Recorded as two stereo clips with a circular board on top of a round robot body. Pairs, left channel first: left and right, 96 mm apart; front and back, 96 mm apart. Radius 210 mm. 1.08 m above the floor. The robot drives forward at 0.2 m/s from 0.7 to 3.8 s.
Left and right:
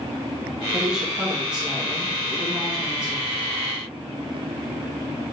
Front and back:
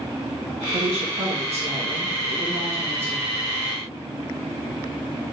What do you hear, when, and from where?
0.7 s a woman speaking: 170° right, 2 m